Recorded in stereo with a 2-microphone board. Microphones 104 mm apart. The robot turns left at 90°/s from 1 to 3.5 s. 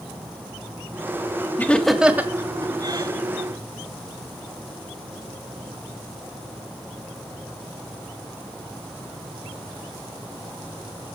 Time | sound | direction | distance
1.6 | laughter | 20° left (ahead or behind) | 1.8 m